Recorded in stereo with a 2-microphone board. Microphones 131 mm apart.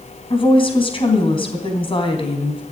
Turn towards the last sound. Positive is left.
turn(degrees=40)  # may be behind; listen again after turning